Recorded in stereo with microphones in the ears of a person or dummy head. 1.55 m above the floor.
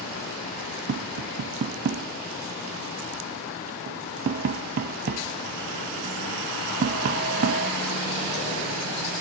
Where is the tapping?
45° right (ahead or behind), 0.7 m.